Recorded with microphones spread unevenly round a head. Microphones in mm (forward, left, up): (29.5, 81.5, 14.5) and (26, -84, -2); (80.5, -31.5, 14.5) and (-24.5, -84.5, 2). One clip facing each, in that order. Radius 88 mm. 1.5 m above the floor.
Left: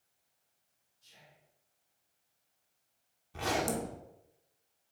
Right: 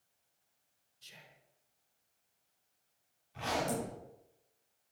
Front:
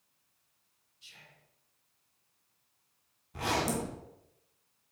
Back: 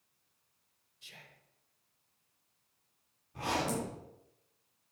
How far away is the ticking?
No ticking in this recording.